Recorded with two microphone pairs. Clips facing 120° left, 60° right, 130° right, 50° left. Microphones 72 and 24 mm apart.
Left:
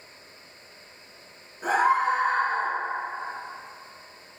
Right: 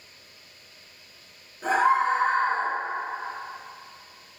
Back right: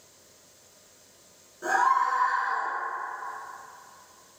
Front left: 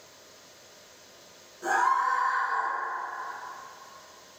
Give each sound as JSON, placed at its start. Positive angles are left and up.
{"t": 1.6, "sound": "a scream", "azimuth_deg": 180, "distance_m": 1.8}